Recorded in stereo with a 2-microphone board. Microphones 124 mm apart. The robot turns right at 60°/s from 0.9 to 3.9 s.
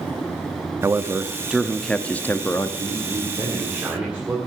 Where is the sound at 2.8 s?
80° right, 2 m; by 4.4 s 15° right, 2 m.